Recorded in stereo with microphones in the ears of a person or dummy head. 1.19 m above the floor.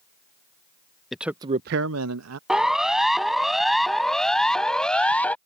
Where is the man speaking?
10° left (ahead or behind); by 2.4 s 85° right.